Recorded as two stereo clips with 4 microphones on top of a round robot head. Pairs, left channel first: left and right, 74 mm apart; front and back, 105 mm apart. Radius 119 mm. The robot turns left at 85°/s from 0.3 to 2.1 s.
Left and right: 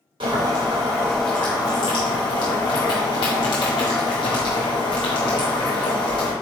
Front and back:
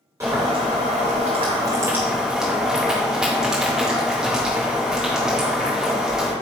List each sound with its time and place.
0.2 s boiling: 110° right, 0.7 m; by 6.3 s 100° left, 0.7 m